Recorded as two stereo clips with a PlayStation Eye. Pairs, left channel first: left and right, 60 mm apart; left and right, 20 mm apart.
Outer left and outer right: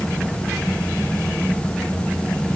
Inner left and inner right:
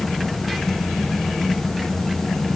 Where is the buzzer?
I don't hear a buzzer.